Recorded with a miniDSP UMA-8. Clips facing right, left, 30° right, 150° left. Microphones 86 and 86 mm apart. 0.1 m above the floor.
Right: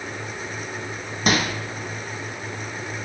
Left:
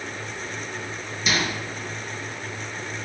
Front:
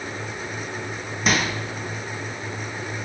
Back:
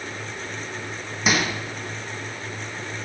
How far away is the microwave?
About 3 m.